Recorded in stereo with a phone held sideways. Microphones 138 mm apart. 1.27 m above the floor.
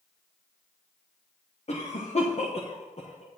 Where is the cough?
50° left (ahead or behind), 1.3 m.